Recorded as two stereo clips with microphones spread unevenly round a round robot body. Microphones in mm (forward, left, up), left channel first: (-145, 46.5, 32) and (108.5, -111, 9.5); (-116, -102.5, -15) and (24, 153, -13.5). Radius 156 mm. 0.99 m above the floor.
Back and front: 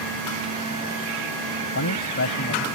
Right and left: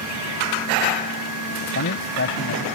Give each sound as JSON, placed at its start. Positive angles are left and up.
{"t": 1.6, "sound": "a man speaking", "azimuth_deg": -170}